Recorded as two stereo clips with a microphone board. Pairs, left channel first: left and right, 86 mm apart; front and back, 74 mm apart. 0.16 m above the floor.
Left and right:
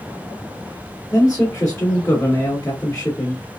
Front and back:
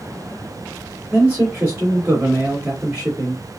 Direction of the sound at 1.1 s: 125° left.